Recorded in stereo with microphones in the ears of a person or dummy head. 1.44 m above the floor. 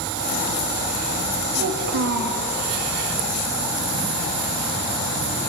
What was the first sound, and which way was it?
A child speaking, 55° right (ahead or behind).